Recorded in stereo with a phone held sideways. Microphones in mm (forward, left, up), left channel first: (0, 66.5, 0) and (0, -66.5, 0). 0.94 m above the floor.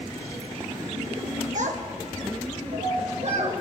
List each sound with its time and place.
1.6 s a child speaking: 65° right (ahead or behind), 1.0 m; by 3.5 s 60° right (ahead or behind), 2.0 m